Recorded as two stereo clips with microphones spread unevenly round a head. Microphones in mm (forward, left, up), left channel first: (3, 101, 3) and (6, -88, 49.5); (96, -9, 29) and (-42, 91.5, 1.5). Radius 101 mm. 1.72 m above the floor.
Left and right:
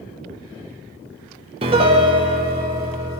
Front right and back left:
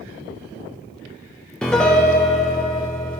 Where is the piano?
110° right, 0.9 m.